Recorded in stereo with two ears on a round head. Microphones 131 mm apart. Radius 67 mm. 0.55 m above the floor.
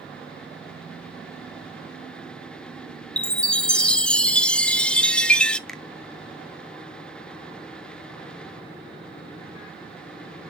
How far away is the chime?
About 0.5 m.